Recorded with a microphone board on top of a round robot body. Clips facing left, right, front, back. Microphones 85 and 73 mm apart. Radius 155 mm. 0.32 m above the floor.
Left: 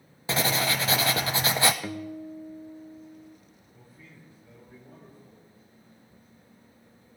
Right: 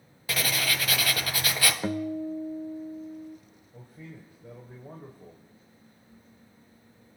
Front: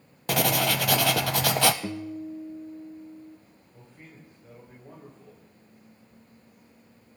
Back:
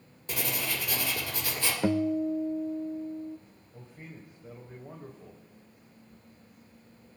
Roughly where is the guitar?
Behind.